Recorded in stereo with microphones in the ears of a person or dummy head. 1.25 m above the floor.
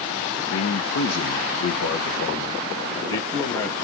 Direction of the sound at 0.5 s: 70° left (ahead or behind).